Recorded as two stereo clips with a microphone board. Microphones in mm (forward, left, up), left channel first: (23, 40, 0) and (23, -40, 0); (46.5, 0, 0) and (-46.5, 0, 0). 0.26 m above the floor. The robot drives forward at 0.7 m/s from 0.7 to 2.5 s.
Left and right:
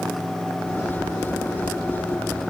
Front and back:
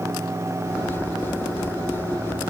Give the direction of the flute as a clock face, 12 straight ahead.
No flute in this recording.